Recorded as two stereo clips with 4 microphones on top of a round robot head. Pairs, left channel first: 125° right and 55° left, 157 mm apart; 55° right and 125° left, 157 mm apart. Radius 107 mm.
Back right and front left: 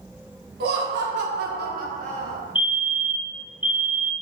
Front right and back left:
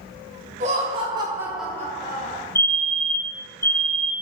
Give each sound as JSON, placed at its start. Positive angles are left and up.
{"t": 0.6, "sound": "laughter", "azimuth_deg": 80, "distance_m": 2.0}
{"t": 2.5, "sound": "a fire alarm", "azimuth_deg": -110, "distance_m": 1.0}